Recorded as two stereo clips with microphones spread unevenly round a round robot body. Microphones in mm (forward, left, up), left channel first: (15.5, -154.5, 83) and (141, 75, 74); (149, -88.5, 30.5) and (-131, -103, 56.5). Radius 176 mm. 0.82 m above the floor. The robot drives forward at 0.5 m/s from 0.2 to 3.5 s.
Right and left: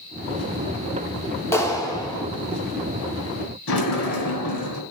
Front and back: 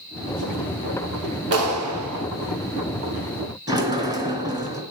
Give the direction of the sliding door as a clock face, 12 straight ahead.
3 o'clock.